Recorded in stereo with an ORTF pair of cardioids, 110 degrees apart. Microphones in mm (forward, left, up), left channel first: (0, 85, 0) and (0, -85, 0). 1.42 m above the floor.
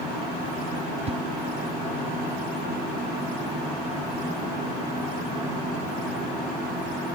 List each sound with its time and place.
1.1 s a whoosh: 40° right